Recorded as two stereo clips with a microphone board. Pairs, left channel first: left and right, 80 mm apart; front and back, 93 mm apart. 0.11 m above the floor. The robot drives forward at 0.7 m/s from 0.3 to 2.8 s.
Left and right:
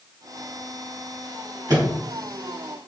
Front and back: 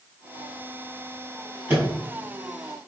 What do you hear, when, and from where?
1.7 s a microwave: 120° right, 2.5 m; by 1.9 s 125° right, 3 m